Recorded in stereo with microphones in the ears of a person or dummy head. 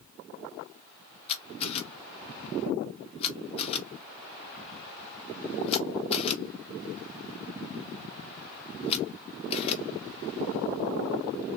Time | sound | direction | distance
1.3 | a camera shutter | 35° left (ahead or behind) | 1.2 m